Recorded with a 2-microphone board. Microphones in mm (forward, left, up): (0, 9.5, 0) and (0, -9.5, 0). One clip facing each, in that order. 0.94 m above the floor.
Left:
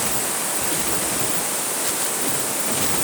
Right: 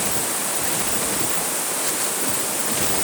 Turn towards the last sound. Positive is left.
No sound to turn to.